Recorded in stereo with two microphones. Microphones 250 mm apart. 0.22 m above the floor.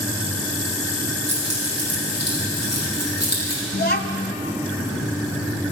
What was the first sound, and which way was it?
Keys jangling, 80° left.